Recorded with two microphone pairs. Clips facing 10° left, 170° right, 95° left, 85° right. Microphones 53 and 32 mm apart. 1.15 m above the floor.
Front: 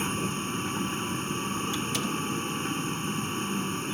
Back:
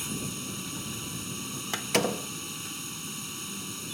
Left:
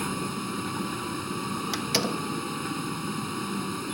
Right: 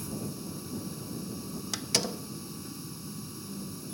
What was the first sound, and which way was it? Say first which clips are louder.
A vehicle: front 6 dB, left 7 dB; 60° left.